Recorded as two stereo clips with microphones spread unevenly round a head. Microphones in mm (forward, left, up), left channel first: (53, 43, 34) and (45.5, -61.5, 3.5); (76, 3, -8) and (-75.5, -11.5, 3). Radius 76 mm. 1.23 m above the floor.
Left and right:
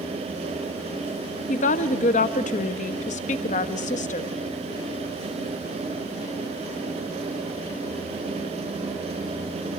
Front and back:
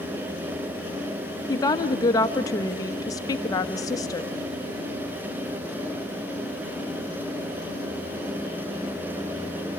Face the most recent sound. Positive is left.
turn(degrees=75)